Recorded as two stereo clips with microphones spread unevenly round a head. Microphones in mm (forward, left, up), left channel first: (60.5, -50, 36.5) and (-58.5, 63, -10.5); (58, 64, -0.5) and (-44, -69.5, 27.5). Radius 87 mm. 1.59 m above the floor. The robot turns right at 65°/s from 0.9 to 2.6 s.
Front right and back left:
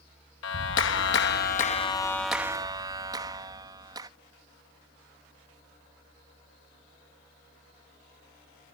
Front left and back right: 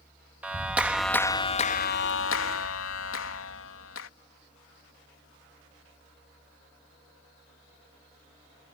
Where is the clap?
45° right; by 4.1 s 65° left.